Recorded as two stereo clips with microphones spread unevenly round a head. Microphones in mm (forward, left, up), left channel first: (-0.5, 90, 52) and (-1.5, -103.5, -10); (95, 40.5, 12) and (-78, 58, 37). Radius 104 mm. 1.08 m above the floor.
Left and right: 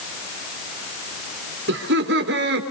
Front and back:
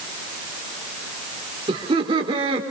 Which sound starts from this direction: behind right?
Laughter, at 1.7 s.